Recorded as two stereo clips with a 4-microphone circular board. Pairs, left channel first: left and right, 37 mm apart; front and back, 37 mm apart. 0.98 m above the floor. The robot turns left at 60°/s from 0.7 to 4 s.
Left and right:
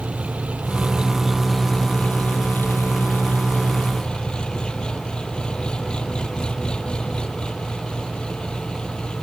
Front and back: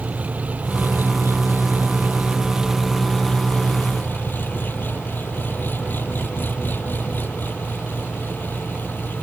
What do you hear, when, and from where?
0.0 s an engine running: 135° right; by 9.2 s 25° left